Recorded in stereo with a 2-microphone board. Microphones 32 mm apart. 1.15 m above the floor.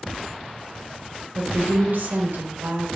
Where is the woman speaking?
85° right, 1.7 m.